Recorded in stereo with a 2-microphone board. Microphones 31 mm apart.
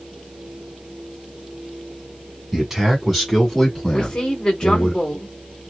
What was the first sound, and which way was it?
A man speaking, 15° right (ahead or behind).